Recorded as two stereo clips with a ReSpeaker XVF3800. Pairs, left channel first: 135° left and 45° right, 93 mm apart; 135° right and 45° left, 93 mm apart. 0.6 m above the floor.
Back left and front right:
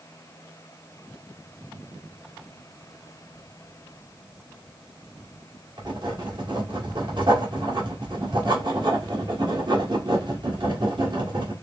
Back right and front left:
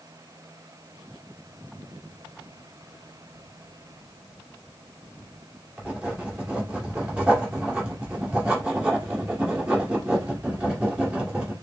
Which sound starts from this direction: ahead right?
Writing, at 5.8 s.